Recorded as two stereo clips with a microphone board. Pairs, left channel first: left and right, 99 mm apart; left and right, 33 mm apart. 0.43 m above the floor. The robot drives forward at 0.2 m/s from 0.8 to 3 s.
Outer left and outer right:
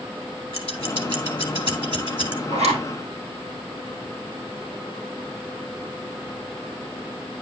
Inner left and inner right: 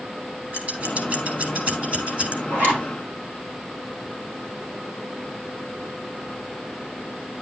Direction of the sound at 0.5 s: 55° right (ahead or behind).